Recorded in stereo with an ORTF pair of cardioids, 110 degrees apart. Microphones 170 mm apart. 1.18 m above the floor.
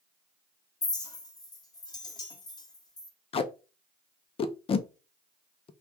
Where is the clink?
25° left, 1.2 m.